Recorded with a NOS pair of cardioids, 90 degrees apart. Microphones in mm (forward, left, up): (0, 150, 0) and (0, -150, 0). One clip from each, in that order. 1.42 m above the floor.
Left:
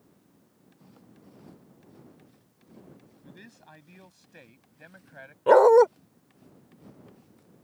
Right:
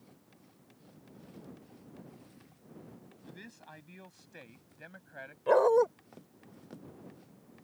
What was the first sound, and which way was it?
A man speaking, straight ahead.